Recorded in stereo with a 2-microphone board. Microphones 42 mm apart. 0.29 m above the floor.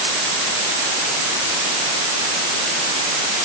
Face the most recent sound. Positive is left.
No sound to turn to.